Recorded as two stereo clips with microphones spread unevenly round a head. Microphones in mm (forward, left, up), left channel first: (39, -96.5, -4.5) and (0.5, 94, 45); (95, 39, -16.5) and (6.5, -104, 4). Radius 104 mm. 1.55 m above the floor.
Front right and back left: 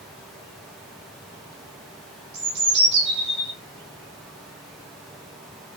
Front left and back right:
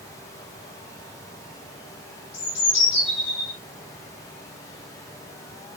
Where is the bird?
65° left, 6 m.